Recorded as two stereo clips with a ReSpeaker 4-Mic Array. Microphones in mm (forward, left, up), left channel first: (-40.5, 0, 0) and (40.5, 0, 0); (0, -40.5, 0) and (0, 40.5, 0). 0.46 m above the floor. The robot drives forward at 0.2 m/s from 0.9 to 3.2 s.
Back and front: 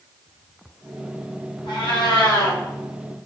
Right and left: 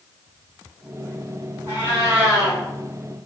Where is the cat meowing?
155° left, 1.7 m; by 2.6 s 160° left, 1.9 m.